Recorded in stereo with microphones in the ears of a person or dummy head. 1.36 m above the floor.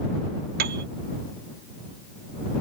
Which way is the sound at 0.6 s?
50° right (ahead or behind).